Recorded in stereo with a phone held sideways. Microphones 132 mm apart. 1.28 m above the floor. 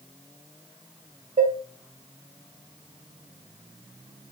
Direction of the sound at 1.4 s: 65° right (ahead or behind).